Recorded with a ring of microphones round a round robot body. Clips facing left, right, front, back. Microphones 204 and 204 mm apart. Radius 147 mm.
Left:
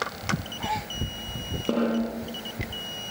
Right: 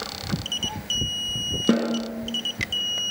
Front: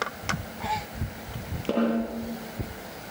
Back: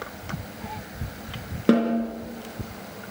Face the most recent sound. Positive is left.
turn(degrees=-135)